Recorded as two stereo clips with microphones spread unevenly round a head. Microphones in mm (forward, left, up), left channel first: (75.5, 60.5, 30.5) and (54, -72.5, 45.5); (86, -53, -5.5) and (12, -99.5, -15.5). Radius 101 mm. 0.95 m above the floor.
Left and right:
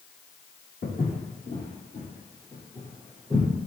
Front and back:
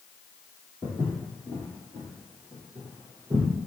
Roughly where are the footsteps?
Behind left.